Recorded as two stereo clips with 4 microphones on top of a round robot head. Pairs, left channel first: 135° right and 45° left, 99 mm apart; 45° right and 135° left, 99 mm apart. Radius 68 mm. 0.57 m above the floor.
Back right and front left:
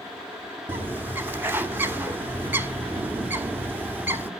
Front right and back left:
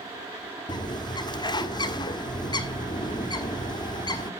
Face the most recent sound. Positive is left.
turn(degrees=-20)